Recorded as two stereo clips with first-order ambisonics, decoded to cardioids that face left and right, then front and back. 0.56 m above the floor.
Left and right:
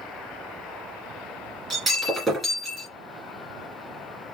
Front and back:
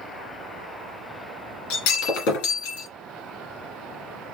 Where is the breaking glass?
15° right, 2.5 m.